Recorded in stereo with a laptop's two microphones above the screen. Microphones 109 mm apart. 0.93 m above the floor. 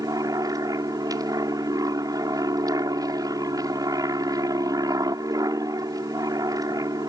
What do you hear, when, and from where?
0.0 s an aircraft: 35° right (ahead or behind)